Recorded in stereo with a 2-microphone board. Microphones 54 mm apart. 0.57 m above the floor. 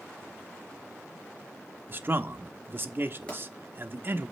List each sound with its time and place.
1.9 s a man speaking: 40° right (ahead or behind), 0.8 m
3.3 s a pop: 20° left (ahead or behind), 4 m